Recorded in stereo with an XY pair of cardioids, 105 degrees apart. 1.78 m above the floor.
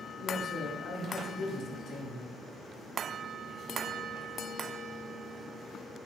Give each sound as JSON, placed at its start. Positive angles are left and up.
{"t": 0.2, "sound": "a man speaking", "azimuth_deg": 65, "distance_m": 0.9}